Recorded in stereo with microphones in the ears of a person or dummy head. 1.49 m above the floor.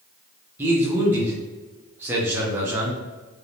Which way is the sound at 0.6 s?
10° right (ahead or behind).